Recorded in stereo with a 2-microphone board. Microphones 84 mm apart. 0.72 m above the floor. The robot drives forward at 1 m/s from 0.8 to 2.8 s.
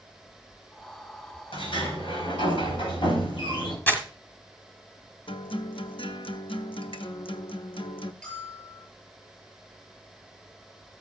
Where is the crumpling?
20° left (ahead or behind), 1.7 m.